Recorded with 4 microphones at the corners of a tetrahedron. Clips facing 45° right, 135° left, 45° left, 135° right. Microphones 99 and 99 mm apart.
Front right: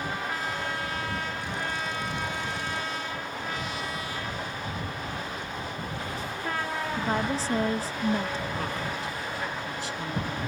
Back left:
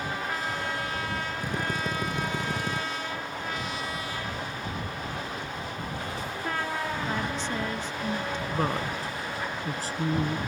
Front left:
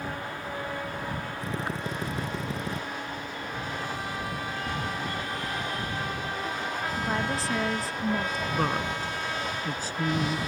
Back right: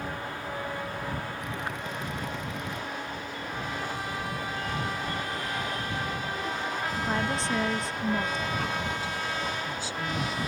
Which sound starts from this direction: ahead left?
Knocking, at 4.3 s.